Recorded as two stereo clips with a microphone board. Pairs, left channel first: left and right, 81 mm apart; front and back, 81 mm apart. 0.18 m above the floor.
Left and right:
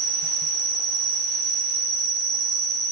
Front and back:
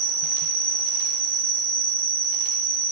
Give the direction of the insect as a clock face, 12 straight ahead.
4 o'clock.